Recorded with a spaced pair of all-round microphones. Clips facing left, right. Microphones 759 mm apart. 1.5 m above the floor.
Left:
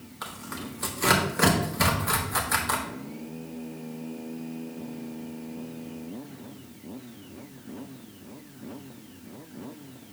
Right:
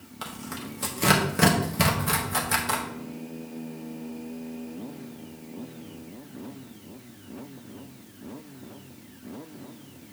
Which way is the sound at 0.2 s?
60° right (ahead or behind).